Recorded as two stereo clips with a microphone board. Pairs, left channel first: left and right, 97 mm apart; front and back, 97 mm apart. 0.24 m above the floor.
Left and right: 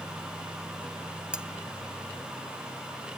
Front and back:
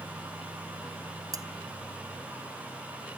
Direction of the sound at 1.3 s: 165° right.